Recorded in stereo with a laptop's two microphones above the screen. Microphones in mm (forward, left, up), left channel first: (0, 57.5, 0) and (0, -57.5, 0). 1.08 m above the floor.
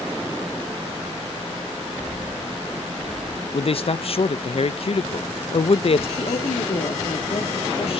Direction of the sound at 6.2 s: 55° left (ahead or behind).